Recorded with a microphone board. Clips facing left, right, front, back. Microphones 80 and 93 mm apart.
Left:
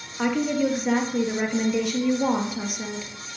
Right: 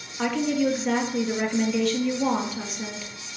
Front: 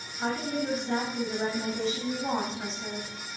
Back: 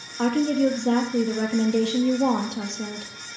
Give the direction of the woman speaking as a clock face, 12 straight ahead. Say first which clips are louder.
Left 1 dB, back 10 dB; 6 o'clock.